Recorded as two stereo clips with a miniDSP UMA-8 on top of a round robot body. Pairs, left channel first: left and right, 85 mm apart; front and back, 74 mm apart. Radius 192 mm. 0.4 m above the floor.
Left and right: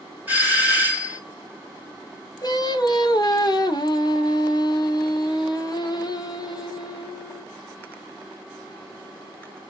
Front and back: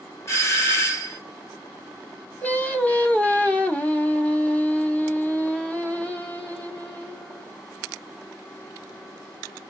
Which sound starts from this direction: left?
Singing, at 2.4 s.